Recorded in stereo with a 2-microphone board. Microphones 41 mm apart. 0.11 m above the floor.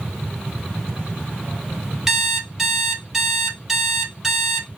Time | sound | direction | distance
2.1 | an alarm clock | 5° right (ahead or behind) | 1.2 m